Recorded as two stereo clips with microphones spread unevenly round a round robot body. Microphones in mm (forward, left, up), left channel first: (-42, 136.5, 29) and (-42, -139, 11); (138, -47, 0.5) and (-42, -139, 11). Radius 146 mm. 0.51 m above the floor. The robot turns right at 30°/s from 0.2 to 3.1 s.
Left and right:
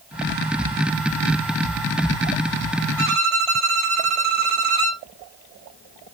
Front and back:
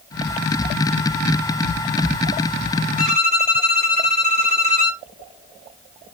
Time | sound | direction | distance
3.0 | a violin | 110° right | 2 m